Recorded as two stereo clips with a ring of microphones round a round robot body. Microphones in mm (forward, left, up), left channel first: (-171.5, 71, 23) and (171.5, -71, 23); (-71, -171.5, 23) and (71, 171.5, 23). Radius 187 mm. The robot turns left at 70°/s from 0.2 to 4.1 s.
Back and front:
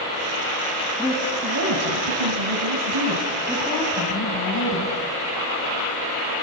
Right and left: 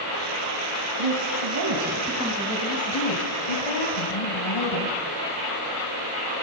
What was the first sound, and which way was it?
A woman speaking, 70° left.